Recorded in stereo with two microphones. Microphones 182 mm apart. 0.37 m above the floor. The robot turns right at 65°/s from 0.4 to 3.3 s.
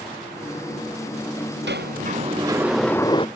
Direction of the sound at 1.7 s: 75° right.